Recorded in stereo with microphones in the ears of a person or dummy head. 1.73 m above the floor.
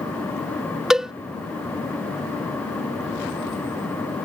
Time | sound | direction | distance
0.9 | a cowbell | centre (ahead or behind) | ?